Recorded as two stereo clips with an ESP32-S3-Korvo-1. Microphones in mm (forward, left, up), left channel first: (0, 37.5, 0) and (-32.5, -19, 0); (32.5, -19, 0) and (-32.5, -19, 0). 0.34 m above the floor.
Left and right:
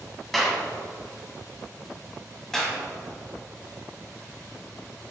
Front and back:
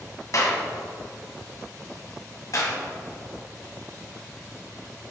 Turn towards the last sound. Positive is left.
turn(degrees=-20)